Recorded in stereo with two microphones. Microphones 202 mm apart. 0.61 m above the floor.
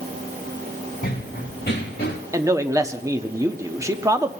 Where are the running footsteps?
45° left (ahead or behind), 2 m; by 2.2 s 50° left (ahead or behind), 4 m.